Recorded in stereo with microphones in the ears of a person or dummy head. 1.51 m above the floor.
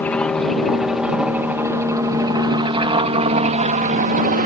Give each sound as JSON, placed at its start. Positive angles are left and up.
{"t": 0.0, "sound": "a helicopter", "side_deg": 10}